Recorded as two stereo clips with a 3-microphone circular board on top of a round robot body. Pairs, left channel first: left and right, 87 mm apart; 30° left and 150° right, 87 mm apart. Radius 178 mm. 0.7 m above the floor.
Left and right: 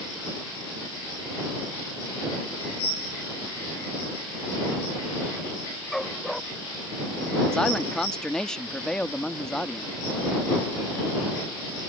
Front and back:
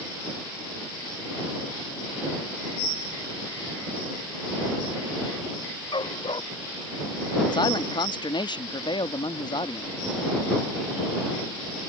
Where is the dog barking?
5° left.